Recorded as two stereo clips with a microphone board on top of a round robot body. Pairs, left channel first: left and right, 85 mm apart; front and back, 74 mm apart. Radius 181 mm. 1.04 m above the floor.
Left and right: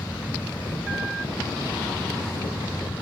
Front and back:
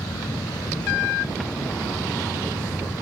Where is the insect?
25° left.